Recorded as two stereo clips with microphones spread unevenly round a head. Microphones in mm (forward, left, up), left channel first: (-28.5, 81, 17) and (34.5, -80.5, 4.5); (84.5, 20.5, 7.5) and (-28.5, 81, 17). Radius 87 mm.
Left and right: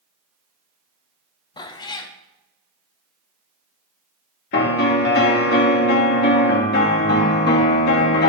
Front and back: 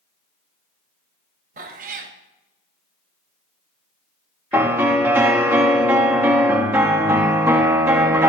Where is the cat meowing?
175° left, 0.6 m.